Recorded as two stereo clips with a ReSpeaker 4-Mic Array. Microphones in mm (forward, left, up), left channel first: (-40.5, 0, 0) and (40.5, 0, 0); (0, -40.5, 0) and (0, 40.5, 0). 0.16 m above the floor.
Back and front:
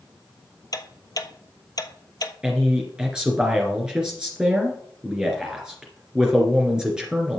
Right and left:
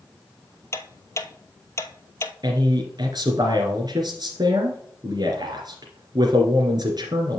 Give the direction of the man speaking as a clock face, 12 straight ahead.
9 o'clock.